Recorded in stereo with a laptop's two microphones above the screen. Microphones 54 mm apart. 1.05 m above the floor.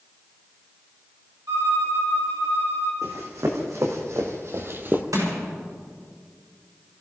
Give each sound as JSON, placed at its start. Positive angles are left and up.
{"t": 1.5, "sound": "a violin", "side_deg": -85, "distance_m": 4.5}
{"t": 3.0, "sound": "running footsteps", "side_deg": -75, "distance_m": 4.0}
{"t": 5.1, "sound": "crushing", "side_deg": -85, "distance_m": 6.5}